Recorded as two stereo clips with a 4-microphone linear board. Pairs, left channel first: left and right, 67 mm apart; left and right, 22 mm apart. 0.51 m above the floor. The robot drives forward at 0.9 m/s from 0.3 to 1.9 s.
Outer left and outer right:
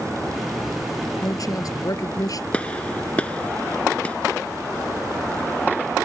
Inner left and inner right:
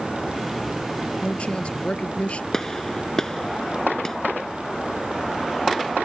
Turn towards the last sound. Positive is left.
turn(degrees=20)  # may be behind; listen again after turning